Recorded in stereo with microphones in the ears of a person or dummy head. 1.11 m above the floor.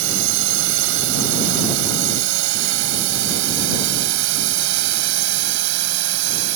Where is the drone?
75° right (ahead or behind); by 6.6 s 65° right (ahead or behind).